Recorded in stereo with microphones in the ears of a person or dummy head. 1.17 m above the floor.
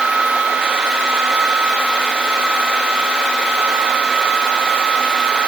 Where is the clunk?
I don't hear a clunk.